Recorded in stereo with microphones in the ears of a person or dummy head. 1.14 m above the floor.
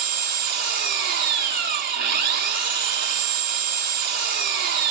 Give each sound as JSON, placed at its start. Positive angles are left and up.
{"t": 0.0, "sound": "an engine running", "side_deg": -55, "distance_m": 0.9}